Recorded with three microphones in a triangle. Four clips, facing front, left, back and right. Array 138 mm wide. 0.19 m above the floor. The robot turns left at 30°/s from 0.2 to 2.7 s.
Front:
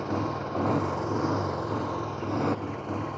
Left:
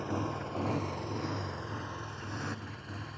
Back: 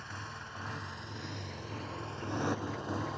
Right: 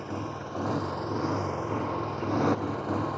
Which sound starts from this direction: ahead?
A motorcycle, at 0.0 s.